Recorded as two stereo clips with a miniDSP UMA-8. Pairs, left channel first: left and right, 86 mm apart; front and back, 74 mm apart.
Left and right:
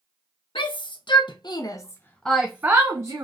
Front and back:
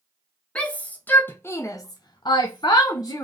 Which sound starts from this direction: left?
A shout, at 0.6 s.